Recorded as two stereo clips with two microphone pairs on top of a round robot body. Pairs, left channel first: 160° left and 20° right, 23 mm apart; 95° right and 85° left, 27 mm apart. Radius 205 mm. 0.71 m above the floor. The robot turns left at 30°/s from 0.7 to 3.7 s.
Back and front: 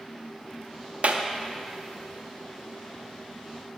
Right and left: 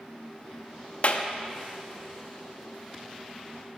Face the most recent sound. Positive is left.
turn(degrees=-135)